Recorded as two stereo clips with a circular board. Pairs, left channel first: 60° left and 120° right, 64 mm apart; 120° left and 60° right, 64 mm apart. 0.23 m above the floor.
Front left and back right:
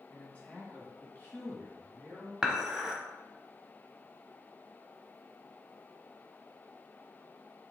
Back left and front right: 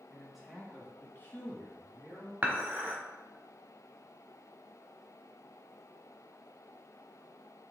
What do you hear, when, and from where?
0.1 s a man speaking: 10° left, 1.3 m; by 2.3 s 125° left, 1.9 m
2.4 s dishes clattering: 45° right, 0.9 m